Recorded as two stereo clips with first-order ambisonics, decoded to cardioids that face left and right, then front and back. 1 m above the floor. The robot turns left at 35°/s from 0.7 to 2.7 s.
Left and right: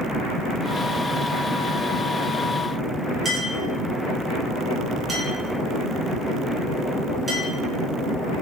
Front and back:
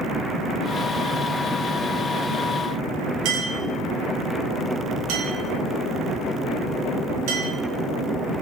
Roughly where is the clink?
Behind.